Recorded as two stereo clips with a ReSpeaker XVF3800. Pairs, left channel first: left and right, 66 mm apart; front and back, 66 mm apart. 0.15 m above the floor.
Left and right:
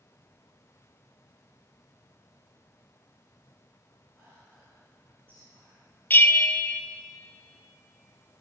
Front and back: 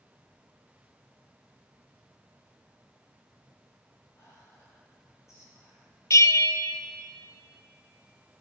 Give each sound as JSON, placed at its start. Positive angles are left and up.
{"t": 4.2, "sound": "whispering", "azimuth_deg": -35, "distance_m": 3.5}
{"t": 6.1, "sound": "a bell", "azimuth_deg": 30, "distance_m": 0.7}